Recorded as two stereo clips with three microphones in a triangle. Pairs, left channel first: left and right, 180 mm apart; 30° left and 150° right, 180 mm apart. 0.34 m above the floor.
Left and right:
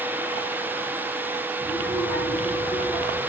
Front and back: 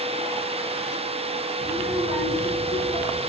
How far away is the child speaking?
About 3.5 m.